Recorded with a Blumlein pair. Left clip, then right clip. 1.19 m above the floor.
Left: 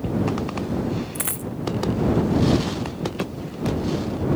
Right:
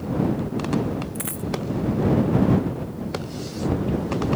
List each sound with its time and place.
1.1 s a dropped coin: 15° left